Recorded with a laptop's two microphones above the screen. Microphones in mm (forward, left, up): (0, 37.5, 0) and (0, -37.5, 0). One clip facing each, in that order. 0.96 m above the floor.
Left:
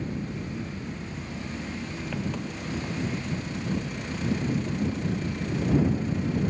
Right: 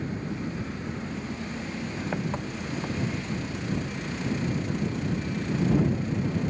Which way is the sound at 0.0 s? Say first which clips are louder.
Right 1 dB; 30° right (ahead or behind).